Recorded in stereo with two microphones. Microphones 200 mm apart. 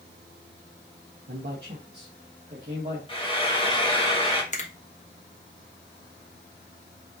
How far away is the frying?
About 1.5 m.